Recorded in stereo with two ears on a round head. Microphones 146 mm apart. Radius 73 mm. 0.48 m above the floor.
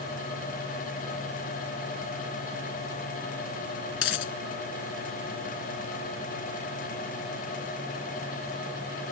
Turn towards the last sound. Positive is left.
turn(degrees=85)